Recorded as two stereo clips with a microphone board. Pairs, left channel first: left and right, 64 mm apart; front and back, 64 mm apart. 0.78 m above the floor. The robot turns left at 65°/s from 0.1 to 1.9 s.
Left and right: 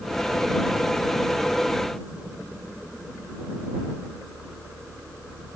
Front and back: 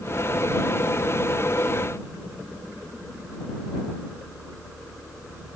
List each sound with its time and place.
Only background noise.